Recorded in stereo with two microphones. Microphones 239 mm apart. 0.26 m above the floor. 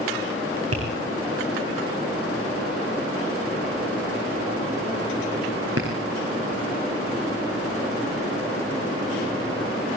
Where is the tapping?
80° right, 6 m.